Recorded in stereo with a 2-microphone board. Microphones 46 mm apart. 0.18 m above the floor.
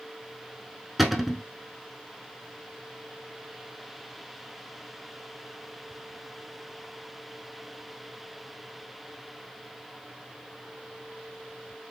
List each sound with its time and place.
1.0 s a cupboard door: 5° right (ahead or behind), 0.7 m